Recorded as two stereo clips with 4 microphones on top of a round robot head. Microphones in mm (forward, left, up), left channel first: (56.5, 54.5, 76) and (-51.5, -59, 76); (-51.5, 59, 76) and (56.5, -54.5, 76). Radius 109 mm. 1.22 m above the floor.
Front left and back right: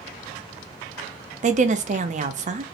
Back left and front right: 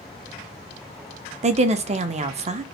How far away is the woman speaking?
About 0.7 m.